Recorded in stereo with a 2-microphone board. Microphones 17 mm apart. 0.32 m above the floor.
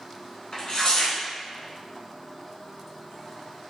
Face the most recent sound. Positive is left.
turn(degrees=40)  # may be behind; listen again after turning